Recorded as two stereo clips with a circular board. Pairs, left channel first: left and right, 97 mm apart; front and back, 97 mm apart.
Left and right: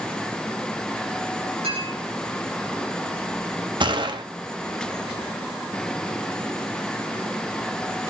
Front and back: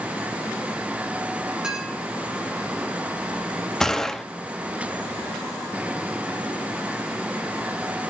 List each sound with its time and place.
1.6 s a clink: 100° right, 10 m
3.8 s a gunshot: 85° right, 1.2 m